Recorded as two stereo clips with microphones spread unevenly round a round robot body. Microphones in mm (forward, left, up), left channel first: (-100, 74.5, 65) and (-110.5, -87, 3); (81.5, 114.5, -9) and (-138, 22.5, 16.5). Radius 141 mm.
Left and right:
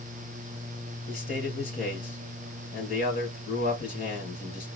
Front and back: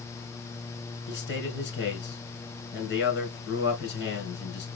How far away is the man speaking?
About 2.5 m.